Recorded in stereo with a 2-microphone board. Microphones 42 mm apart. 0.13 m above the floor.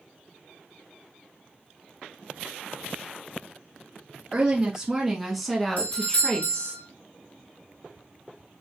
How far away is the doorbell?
About 3 m.